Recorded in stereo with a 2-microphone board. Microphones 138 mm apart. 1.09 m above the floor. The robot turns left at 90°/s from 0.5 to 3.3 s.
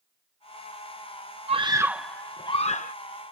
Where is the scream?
130° right; by 3.0 s 100° left.